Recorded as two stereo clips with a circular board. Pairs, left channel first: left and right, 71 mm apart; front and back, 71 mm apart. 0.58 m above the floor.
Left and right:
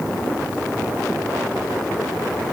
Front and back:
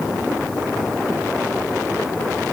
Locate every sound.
Only background noise.